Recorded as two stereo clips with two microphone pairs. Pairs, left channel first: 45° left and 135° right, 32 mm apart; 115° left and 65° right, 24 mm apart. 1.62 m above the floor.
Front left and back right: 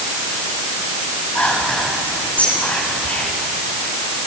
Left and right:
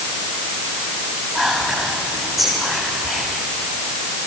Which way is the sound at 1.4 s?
Straight ahead.